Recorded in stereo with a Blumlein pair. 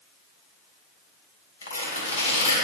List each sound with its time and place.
1.6 s tearing paper: 70° left, 2 m